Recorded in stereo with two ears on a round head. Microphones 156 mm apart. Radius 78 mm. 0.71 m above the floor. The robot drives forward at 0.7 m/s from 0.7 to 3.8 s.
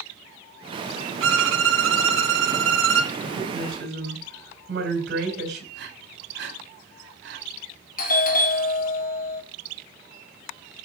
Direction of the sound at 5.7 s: 70° right (ahead or behind).